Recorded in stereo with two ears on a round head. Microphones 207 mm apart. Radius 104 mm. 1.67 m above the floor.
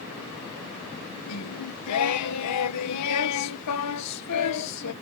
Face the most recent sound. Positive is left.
turn(degrees=90)